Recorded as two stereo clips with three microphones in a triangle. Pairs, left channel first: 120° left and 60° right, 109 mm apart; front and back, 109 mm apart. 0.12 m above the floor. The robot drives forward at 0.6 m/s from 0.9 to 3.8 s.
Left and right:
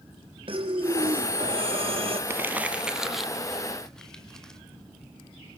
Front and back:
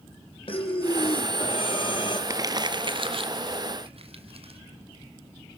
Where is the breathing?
30° right, 2.5 m; by 2.2 s 40° right, 2.0 m.